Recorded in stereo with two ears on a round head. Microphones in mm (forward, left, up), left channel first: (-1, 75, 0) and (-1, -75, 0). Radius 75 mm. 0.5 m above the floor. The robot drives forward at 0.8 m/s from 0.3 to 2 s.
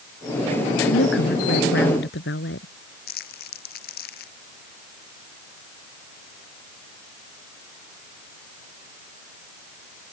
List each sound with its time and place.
0.9 s a woman speaking: 80° left; by 2.7 s 75° left (ahead or behind)
3.1 s crumpling: 60° left (ahead or behind)